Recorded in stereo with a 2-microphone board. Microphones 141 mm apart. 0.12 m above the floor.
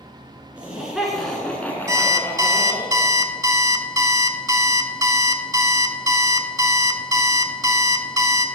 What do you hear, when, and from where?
0.6 s laughter: 10° right (ahead or behind), 1.7 m; by 2.9 s 30° left (ahead or behind), 1.7 m
1.9 s an alarm clock: 25° right (ahead or behind), 0.5 m